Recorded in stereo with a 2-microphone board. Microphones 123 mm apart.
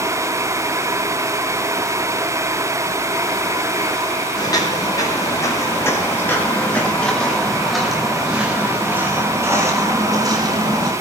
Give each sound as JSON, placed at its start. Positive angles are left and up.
{"t": 4.4, "sound": "footsteps", "side_deg": 30, "distance_m": 7.0}